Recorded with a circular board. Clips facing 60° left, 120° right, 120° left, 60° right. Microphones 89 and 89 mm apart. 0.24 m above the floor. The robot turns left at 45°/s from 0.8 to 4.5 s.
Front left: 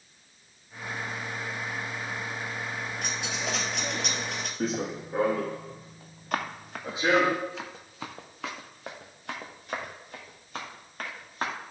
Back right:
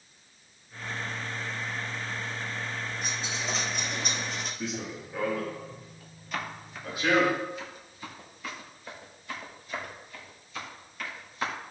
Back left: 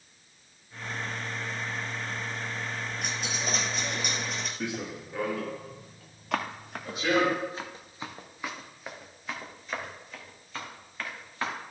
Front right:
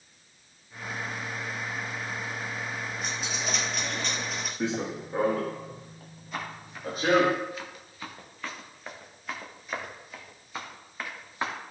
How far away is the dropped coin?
About 2 m.